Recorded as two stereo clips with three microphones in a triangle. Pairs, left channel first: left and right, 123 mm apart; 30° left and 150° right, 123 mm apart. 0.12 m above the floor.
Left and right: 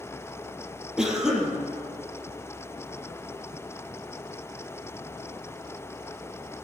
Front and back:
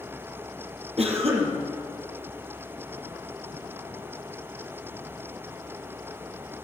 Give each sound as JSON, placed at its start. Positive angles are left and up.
{"t": 1.0, "sound": "a cough", "azimuth_deg": -175, "distance_m": 3.5}